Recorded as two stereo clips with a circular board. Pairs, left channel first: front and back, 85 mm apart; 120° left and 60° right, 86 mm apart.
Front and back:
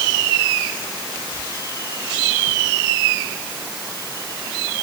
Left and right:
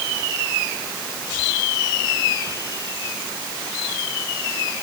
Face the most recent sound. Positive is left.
No sound to turn to.